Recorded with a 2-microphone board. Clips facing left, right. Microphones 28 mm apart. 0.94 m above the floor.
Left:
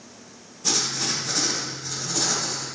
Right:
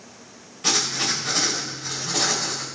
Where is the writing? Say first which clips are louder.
Right 3 dB; 80° right, 3 m.